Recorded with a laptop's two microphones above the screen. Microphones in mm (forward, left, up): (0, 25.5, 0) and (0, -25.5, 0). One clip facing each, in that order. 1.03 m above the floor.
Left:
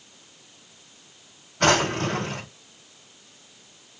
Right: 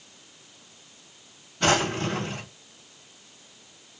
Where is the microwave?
No microwave in this recording.